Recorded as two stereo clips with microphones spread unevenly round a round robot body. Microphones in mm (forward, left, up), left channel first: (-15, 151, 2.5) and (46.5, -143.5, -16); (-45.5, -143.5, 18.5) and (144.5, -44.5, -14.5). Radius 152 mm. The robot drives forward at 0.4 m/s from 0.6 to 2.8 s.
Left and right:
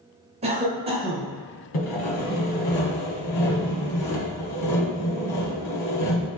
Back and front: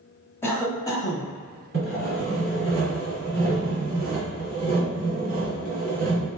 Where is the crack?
No crack in this recording.